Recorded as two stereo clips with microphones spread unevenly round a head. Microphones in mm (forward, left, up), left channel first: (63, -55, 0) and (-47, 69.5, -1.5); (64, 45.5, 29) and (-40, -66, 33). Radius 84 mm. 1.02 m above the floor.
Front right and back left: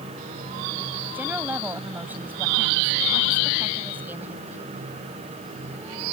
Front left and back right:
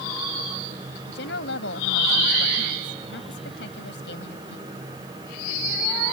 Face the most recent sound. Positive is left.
turn(degrees=50)